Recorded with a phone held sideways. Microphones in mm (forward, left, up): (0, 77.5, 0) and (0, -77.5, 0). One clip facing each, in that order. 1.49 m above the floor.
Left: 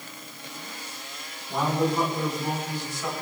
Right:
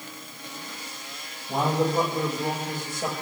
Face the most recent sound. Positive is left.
turn(degrees=-50)  # may be behind; listen again after turning